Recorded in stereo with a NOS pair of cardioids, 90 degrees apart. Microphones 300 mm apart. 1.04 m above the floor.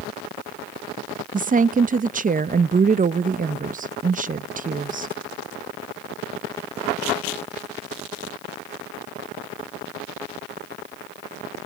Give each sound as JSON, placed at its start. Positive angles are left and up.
{"t": 1.3, "sound": "a woman speaking", "azimuth_deg": -25, "distance_m": 0.8}